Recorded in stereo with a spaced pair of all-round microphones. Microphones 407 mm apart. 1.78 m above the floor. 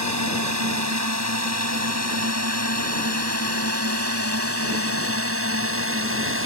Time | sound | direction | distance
0.0 | a drone | 40° right (ahead or behind) | ?